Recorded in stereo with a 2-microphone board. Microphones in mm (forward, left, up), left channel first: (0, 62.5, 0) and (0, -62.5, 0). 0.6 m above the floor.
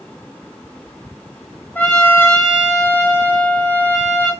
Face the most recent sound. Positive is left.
turn(degrees=10)  # may be behind; listen again after turning